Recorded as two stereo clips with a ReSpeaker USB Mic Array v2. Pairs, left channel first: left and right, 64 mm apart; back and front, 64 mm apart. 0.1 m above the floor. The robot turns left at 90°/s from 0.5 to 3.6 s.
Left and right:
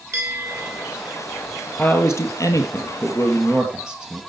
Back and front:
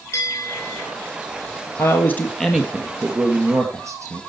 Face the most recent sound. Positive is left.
turn(degrees=-15)